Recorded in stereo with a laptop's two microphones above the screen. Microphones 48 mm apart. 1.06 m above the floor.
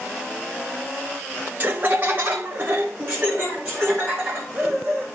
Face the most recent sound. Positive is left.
turn(degrees=-25)  # may be behind; listen again after turning